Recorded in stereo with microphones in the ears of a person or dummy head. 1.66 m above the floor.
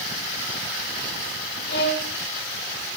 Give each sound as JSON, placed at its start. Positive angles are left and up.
{"t": 1.7, "sound": "a violin", "side_deg": 60, "distance_m": 1.9}